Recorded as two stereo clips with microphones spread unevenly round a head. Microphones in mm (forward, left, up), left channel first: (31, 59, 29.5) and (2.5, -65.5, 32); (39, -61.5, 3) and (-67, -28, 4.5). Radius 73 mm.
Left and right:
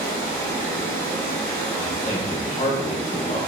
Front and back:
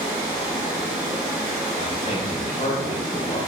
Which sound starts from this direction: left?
Running water, at 0.0 s.